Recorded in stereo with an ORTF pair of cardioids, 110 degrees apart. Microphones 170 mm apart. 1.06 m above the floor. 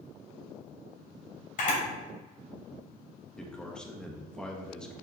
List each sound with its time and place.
1.6 s a camera shutter: 50° left, 3 m
3.4 s a man speaking: 5° left, 1.2 m